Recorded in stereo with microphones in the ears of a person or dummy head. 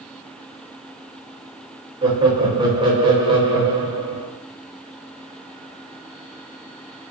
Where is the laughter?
25° right (ahead or behind), 1.0 m.